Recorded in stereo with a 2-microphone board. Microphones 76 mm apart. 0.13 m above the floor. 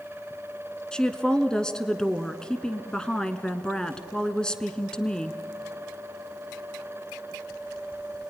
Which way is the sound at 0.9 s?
10° left (ahead or behind).